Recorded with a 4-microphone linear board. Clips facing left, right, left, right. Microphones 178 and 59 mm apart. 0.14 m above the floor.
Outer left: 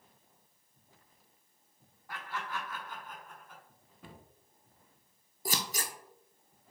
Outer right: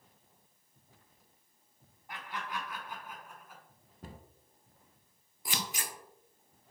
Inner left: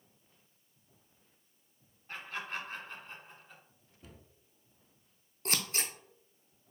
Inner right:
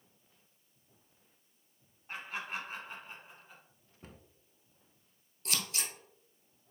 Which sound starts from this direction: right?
A cupboard door, at 4.0 s.